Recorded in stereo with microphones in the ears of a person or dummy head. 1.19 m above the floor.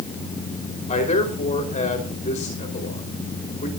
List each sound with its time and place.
0.9 s a man speaking: 30° left (ahead or behind), 4.5 m